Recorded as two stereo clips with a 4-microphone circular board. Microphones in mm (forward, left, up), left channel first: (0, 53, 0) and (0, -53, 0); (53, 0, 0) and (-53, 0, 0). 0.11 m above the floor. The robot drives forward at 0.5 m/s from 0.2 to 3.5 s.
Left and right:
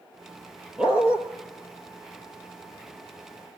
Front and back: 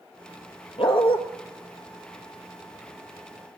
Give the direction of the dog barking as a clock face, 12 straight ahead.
12 o'clock.